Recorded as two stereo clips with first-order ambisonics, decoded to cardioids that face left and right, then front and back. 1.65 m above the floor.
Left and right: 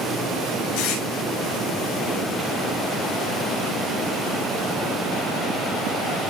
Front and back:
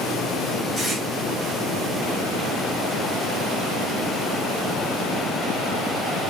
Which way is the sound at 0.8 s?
80° left.